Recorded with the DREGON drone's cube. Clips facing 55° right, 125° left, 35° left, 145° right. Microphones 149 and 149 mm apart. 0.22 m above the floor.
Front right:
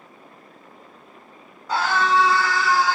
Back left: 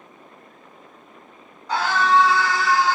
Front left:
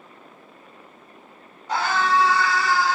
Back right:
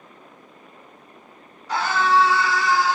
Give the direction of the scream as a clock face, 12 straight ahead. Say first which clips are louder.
Back left 1 dB, back right 2 dB; 11 o'clock.